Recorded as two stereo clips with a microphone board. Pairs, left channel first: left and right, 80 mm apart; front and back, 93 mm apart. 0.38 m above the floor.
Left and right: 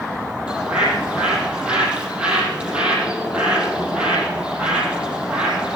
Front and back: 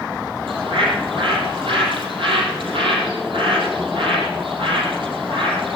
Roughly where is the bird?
Behind.